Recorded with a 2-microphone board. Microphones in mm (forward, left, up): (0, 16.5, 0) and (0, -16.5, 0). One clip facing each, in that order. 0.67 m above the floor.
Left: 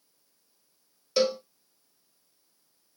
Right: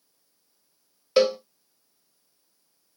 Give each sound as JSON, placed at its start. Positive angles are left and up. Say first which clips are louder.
{"t": 1.2, "sound": "a cowbell", "louder": "right 5 dB", "side_deg": -35, "distance_m": 0.7}